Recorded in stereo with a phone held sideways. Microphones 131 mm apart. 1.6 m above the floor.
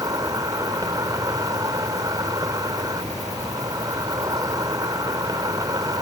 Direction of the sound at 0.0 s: 30° right (ahead or behind).